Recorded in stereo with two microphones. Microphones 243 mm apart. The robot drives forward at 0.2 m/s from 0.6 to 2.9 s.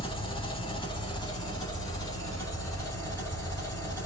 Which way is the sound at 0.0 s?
20° left (ahead or behind).